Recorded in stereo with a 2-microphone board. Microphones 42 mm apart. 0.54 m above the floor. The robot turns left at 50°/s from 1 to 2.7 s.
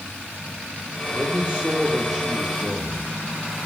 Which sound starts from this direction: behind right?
A man speaking, at 1.1 s.